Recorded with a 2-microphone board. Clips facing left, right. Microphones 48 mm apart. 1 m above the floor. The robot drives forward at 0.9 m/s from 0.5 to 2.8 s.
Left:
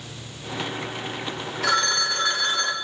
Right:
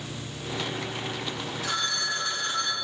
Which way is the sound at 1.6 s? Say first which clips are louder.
Left 8 dB; 85° left.